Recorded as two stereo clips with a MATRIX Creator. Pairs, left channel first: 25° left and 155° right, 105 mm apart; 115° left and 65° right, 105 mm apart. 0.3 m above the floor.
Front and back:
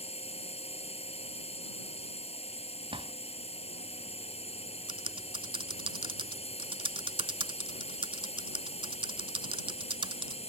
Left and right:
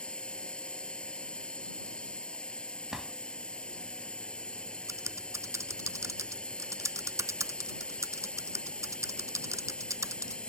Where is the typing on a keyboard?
130° right.